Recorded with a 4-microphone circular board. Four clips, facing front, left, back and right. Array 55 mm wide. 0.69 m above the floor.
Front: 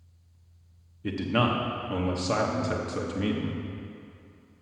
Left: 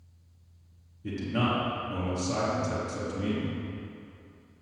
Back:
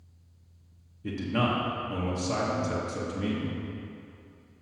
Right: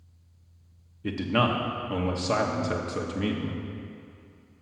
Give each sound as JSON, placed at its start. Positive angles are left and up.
{"t": 1.0, "sound": "a man speaking", "azimuth_deg": -60, "distance_m": 0.7}